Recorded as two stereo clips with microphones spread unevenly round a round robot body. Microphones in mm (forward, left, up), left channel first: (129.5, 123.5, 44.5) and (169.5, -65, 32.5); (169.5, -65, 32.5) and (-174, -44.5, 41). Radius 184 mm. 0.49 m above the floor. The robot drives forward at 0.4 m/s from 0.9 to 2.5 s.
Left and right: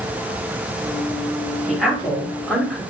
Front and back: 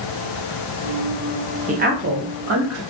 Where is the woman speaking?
155° right, 0.7 m; by 2.8 s 170° right, 0.9 m.